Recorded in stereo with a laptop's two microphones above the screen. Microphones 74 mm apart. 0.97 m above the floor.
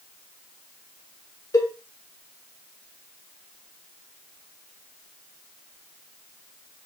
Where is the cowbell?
60° left (ahead or behind), 3 m.